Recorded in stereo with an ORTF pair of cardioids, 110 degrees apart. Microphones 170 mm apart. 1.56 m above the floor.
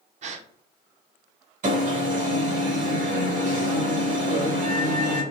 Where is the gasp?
45° right, 0.5 m.